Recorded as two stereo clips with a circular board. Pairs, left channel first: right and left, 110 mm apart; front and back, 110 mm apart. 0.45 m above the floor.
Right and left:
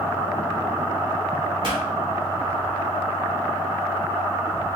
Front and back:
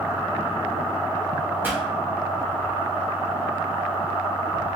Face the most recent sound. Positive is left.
turn(degrees=115)